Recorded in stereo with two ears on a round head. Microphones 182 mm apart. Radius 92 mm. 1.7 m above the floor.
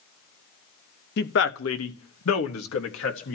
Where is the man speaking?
50° left (ahead or behind), 1.2 m; by 3.4 s 70° left (ahead or behind), 2 m.